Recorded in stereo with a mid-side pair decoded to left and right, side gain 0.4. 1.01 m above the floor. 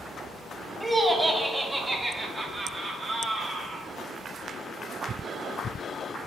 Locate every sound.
0.8 s laughter: 20° right, 2 m; by 3.9 s 60° right, 2.5 m